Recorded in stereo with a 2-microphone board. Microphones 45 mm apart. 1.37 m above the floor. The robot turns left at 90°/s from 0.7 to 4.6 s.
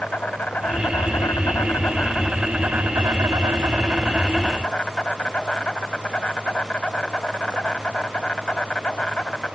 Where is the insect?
145° left; by 9.6 s 155° left.